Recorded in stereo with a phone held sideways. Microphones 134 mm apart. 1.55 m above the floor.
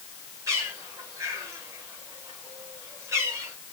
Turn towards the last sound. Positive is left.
turn(degrees=-20)  # may be behind; listen again after turning